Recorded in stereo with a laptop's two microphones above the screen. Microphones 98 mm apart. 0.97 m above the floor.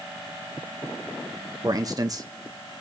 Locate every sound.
1.6 s a man speaking: 40° right (ahead or behind), 0.6 m